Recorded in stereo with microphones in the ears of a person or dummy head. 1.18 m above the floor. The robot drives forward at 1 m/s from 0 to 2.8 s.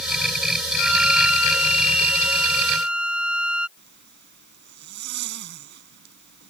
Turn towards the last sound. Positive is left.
turn(degrees=-55)  # may be behind; listen again after turning